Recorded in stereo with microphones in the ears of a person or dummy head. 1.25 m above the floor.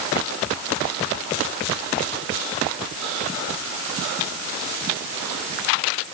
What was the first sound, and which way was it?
Only background noise.